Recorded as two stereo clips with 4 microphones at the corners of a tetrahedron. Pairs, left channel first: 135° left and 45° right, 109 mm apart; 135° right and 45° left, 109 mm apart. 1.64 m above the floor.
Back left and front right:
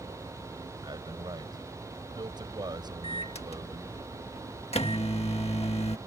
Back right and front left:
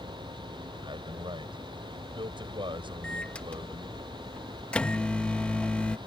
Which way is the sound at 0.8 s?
5° left.